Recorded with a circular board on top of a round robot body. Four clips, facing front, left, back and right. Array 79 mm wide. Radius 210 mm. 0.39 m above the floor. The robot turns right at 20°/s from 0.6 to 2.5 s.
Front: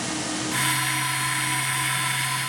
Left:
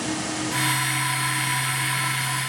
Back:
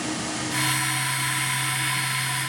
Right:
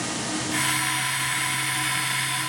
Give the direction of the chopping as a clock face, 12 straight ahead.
I don't hear chopping.